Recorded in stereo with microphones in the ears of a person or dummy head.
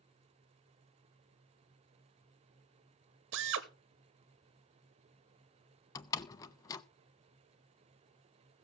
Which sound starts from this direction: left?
A door slam, at 6.0 s.